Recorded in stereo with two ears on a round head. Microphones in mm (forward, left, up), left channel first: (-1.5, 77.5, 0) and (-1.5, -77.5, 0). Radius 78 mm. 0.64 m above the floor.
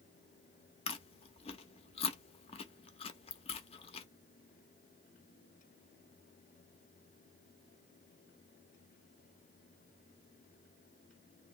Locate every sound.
0.9 s chewing: 35° left (ahead or behind), 0.5 m